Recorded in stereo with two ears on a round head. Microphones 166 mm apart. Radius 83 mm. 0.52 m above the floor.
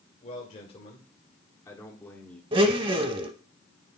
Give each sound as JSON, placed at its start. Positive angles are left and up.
{"t": 0.2, "sound": "a man speaking", "side_deg": 40, "distance_m": 2.0}
{"t": 2.5, "sound": "a blender", "side_deg": -30, "distance_m": 0.8}